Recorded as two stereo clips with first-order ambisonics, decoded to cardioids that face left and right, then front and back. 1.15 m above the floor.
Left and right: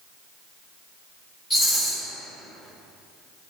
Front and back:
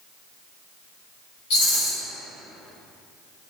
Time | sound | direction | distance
1.5 | a rattle | straight ahead | 1.4 m